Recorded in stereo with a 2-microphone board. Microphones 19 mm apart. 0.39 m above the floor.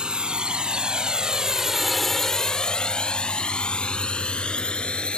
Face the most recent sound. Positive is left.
turn(degrees=60)  # may be behind; listen again after turning